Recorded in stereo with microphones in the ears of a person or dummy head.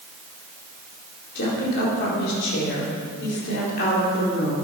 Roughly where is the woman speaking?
Left.